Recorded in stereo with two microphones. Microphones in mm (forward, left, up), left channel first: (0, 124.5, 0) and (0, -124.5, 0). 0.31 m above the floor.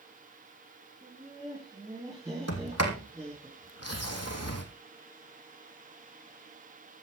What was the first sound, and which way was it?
Laughter, 20° right (ahead or behind).